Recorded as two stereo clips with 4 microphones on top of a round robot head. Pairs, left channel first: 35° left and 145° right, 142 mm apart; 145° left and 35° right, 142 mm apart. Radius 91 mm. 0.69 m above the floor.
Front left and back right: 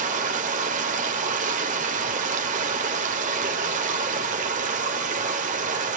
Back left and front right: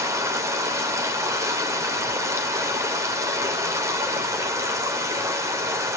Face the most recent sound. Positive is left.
turn(degrees=-105)